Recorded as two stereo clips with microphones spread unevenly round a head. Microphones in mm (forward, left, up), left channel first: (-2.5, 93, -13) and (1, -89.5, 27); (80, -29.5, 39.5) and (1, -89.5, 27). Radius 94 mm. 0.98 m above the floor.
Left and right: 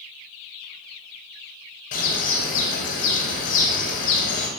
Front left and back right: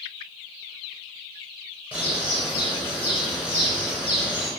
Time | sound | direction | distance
1.9 | a bird | 135° left | 6 m